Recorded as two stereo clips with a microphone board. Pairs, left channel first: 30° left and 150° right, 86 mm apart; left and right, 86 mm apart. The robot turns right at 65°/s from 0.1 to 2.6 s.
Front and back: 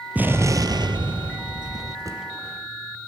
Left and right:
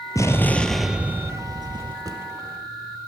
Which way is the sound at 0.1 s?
140° left.